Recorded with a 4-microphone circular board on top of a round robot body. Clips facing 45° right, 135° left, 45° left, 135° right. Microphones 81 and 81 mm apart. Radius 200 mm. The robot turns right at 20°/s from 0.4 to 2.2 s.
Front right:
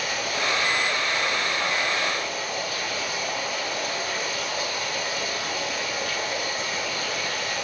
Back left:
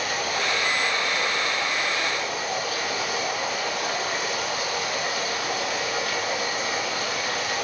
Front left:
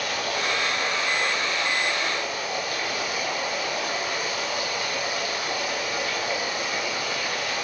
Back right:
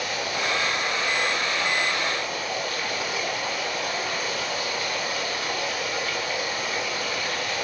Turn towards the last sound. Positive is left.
turn(degrees=120)